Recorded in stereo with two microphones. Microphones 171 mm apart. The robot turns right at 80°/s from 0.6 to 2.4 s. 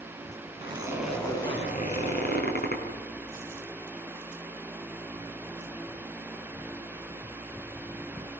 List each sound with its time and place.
0.6 s a zipper: 40° right, 5 m; by 2.8 s 105° left, 5 m